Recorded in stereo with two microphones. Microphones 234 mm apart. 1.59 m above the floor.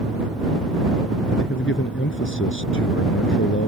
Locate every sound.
1.4 s a man speaking: 55° left (ahead or behind)